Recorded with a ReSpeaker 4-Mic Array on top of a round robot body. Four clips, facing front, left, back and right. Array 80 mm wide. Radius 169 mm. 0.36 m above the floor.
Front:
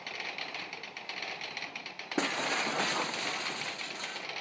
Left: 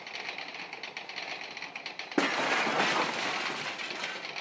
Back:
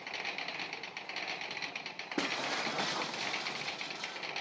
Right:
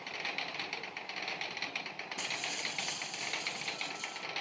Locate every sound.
2.2 s breaking glass: 80° left